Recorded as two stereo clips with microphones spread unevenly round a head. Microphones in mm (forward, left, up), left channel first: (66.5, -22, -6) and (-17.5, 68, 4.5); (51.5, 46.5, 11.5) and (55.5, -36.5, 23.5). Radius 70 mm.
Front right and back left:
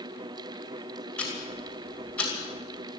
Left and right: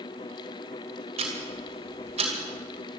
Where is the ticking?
130° right, 2.5 m.